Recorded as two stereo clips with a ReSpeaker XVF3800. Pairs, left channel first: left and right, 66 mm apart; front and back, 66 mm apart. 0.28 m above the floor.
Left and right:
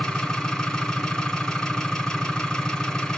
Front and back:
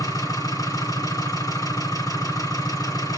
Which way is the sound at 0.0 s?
5° left.